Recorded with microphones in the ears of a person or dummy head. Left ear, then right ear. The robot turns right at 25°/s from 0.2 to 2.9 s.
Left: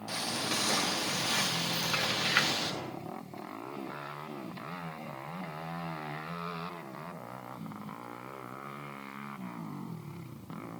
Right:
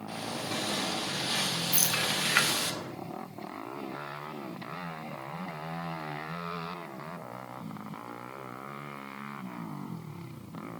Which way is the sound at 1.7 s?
55° right (ahead or behind).